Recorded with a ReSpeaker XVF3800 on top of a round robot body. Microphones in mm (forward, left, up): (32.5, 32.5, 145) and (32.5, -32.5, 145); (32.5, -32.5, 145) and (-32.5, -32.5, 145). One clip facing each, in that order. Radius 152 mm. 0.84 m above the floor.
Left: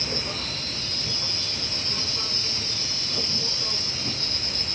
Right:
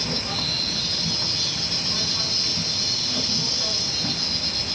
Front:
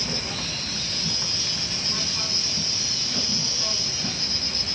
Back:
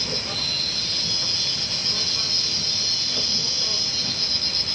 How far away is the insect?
About 3 m.